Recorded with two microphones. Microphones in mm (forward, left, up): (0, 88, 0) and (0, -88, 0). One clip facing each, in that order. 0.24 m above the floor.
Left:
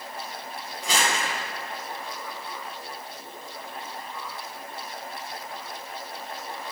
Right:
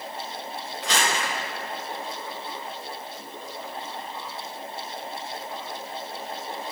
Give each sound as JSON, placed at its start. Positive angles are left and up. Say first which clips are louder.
{"t": 0.8, "sound": "crumpling", "louder": "even", "side_deg": 10, "distance_m": 3.5}